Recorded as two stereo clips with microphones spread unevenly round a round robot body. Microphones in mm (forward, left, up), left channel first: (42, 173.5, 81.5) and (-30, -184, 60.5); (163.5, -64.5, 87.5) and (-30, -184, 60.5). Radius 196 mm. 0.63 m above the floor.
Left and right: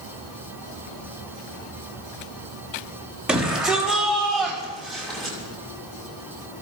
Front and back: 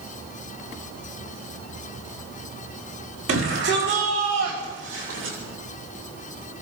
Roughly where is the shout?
Behind.